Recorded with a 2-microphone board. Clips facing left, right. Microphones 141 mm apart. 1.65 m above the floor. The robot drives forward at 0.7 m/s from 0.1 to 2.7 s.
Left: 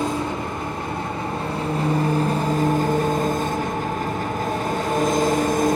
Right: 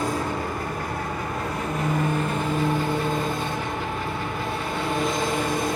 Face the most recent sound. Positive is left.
turn(degrees=45)  # may be behind; listen again after turning